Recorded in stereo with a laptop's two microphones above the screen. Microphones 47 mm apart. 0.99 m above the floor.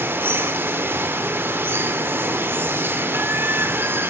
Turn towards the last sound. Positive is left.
turn(degrees=-55)  # may be behind; listen again after turning